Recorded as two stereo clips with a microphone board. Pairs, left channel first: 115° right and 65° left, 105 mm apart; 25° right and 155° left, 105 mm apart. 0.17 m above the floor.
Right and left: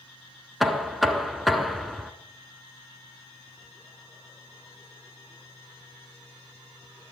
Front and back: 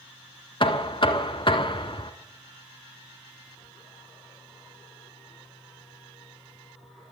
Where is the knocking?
25° right, 1.1 m.